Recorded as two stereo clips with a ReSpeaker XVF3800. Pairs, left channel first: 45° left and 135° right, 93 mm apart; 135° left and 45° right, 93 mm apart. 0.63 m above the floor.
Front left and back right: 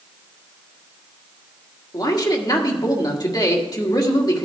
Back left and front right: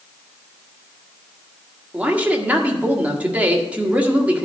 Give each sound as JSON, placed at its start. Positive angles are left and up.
{"t": 1.9, "sound": "a man speaking", "azimuth_deg": 25, "distance_m": 1.6}